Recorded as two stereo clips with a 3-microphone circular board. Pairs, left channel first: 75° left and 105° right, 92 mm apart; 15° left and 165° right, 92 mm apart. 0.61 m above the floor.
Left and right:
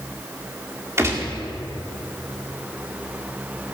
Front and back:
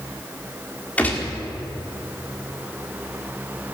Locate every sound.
1.0 s a gunshot: 55° right, 1.8 m